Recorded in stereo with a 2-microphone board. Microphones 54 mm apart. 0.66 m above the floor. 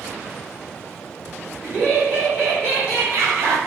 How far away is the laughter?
About 1.9 m.